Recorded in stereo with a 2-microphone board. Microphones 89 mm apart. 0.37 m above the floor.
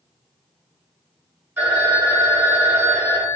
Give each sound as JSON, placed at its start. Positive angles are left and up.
{"t": 1.6, "sound": "a phone ringing", "side_deg": -25, "distance_m": 1.5}